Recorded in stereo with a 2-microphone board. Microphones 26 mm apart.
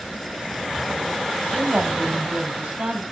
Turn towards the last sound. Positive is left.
turn(degrees=-55)  # may be behind; listen again after turning